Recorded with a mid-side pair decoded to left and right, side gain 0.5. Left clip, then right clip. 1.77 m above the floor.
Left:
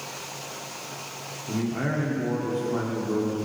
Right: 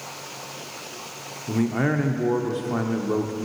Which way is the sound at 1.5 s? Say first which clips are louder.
Right 5 dB; 45° right.